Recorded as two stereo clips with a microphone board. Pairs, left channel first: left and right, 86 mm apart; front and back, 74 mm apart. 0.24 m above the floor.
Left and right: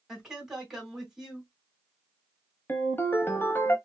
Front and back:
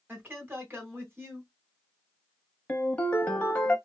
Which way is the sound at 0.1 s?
165° right.